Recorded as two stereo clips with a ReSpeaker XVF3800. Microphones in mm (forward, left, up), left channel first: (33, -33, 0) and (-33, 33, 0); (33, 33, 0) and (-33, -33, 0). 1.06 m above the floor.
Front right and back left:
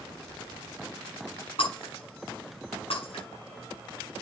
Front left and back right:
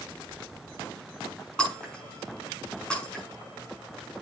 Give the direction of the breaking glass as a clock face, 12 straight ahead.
1 o'clock.